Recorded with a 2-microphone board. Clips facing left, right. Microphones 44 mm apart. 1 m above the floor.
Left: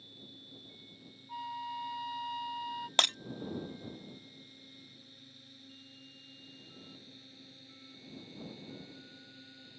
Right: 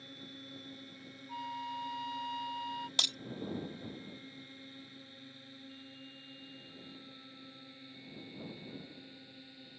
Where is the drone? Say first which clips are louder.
Right 4 dB; 60° right (ahead or behind); by 9.8 s 10° right (ahead or behind).